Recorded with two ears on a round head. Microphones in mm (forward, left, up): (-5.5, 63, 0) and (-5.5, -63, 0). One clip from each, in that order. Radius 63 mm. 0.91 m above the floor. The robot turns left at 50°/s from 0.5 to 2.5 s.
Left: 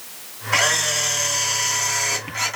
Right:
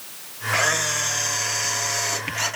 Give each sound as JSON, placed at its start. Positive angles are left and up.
{"t": 0.5, "sound": "a camera shutter", "azimuth_deg": 115, "distance_m": 2.0}